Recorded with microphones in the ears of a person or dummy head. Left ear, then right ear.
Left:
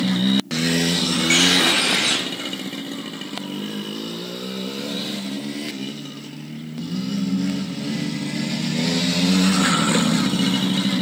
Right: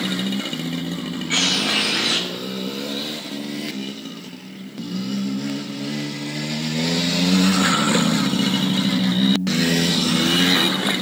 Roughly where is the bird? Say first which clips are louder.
Left 2 dB; left.